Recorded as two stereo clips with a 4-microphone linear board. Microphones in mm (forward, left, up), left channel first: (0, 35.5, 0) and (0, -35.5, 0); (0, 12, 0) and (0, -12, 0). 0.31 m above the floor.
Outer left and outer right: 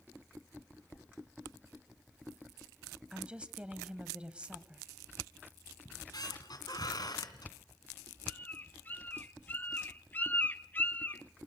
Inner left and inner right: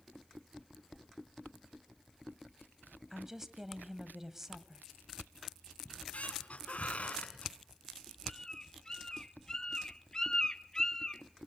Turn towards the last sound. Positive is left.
turn(degrees=30)  # may be behind; listen again after turning